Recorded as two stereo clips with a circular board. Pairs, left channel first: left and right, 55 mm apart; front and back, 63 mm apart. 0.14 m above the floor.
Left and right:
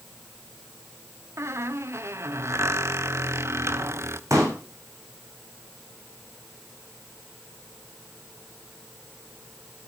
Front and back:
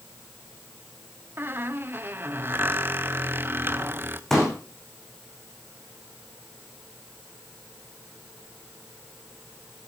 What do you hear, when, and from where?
1.4 s a squeak: 125° right, 0.8 m
4.3 s a pop: 85° right, 6.5 m